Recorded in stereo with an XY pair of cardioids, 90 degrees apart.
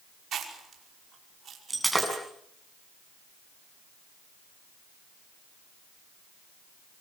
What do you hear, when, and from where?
0.3 s chewing: 60° right, 5.5 m
1.7 s breaking glass: 15° right, 7.5 m